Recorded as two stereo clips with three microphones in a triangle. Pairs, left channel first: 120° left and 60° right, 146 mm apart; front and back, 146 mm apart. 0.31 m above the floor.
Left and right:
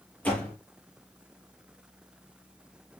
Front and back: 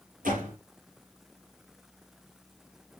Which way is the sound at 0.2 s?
160° right.